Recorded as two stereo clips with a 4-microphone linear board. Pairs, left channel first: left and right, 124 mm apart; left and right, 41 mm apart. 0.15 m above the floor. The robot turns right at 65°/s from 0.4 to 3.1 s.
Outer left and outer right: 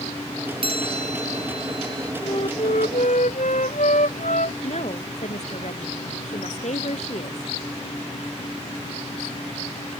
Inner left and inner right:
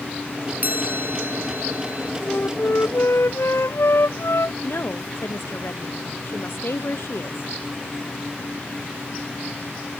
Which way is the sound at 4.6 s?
65° left (ahead or behind).